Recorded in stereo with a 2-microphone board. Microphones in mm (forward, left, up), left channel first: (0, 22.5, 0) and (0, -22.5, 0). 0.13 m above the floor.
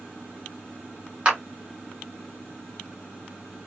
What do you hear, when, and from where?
1.2 s a clap: 25° right (ahead or behind), 1.3 m